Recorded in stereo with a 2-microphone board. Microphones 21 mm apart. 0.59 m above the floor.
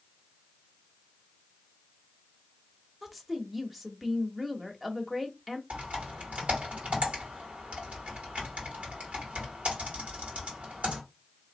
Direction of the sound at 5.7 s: 70° right (ahead or behind).